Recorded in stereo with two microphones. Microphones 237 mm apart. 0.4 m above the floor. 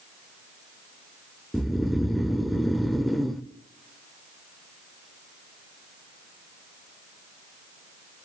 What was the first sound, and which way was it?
Snoring, centre (ahead or behind).